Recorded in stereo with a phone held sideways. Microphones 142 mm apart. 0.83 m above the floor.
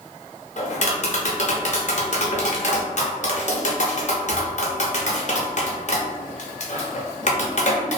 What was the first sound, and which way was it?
Tapping, 55° left (ahead or behind).